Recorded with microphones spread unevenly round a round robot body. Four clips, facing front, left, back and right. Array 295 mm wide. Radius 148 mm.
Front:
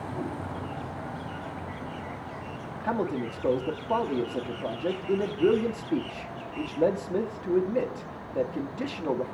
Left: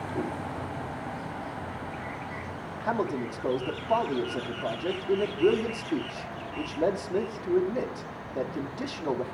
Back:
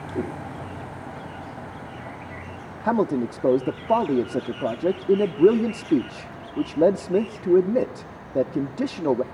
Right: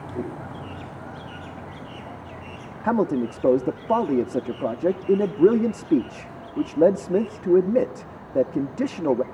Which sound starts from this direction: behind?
A whoosh, at 0.1 s.